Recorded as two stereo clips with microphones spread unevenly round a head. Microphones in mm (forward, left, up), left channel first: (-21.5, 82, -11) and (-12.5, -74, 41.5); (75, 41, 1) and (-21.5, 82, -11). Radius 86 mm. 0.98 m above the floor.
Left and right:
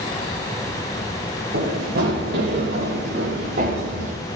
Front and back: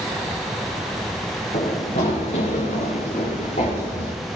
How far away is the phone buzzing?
I don't hear a phone buzzing.